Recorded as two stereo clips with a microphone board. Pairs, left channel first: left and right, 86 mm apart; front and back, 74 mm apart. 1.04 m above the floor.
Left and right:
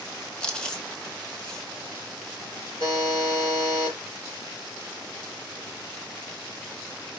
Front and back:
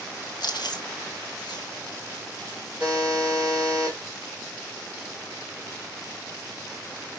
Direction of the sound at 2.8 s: 110° left.